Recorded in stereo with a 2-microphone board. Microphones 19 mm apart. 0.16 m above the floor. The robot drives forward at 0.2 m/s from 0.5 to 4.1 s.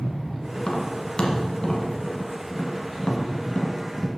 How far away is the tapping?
About 1.1 m.